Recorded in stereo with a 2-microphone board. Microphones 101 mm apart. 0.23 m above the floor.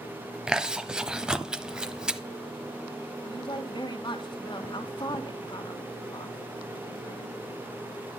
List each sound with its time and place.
0.5 s chewing: 10° right (ahead or behind), 0.9 m
3.2 s a woman speaking: 50° left (ahead or behind), 1.8 m